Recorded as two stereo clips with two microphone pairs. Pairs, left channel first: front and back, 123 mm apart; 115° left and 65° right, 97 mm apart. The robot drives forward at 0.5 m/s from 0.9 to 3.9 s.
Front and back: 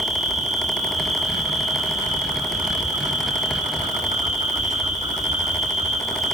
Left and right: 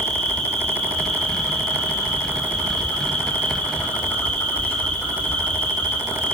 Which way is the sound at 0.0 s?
165° right.